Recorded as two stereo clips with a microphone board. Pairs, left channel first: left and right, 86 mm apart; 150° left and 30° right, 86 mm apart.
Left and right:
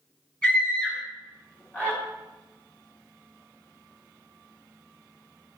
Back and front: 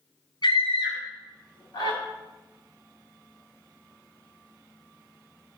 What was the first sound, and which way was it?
A scream, 165° left.